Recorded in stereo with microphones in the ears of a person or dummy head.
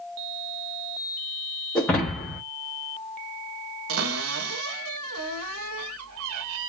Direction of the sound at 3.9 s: 80° right.